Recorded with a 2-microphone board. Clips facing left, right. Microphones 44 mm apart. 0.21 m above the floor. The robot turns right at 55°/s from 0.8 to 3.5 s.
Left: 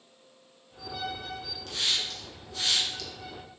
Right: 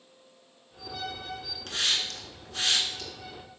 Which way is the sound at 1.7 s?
60° right (ahead or behind).